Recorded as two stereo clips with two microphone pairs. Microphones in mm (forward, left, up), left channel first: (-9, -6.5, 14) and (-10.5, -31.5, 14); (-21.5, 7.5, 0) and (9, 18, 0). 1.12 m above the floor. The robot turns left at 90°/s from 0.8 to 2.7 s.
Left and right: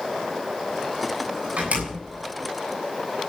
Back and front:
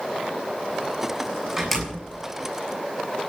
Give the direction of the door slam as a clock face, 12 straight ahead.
2 o'clock.